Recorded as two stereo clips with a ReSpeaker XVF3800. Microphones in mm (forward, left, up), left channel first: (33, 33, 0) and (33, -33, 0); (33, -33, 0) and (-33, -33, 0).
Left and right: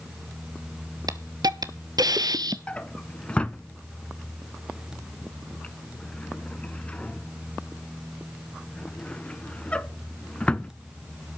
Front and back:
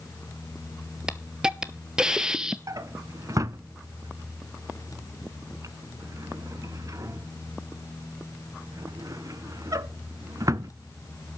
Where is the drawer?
160° left, 0.6 m.